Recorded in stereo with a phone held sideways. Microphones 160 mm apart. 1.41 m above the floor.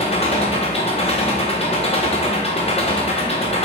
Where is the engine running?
40° left (ahead or behind), 1.3 m.